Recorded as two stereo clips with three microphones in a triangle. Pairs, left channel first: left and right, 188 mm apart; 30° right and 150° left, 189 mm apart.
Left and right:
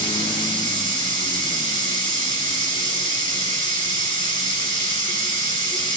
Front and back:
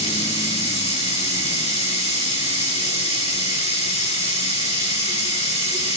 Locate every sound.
0.0 s running water: 25° left, 7 m